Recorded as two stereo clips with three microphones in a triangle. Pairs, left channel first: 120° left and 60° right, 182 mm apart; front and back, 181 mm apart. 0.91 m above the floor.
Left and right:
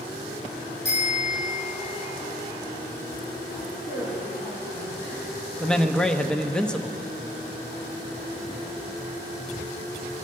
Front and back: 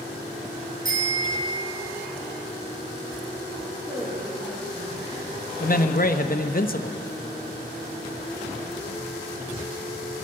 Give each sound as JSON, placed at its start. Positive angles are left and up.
{"t": 0.8, "sound": "a bicycle bell", "azimuth_deg": 135, "distance_m": 5.5}
{"t": 3.8, "sound": "a man speaking", "azimuth_deg": 115, "distance_m": 3.5}
{"t": 5.6, "sound": "a man speaking", "azimuth_deg": 35, "distance_m": 0.8}